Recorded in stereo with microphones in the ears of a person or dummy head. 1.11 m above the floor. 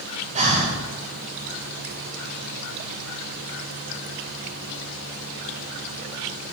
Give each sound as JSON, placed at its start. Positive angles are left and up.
{"t": 0.3, "sound": "breathing", "side_deg": -35, "distance_m": 1.0}